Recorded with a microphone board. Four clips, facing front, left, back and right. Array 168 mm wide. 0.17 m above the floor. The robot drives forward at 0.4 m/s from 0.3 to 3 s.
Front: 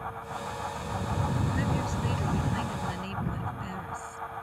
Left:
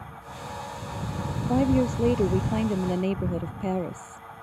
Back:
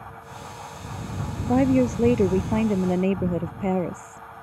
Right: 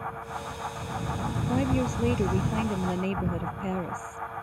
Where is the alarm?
I don't hear an alarm.